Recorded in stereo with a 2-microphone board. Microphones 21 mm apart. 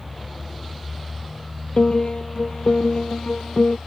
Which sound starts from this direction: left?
A piano, at 1.8 s.